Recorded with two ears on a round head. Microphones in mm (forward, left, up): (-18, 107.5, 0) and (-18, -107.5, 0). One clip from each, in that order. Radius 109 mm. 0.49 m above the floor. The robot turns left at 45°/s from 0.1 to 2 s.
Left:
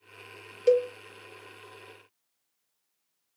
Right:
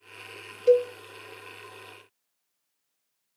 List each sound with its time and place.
0.7 s a cowbell: 15° left (ahead or behind), 0.6 m; by 0.9 s 25° left (ahead or behind), 0.6 m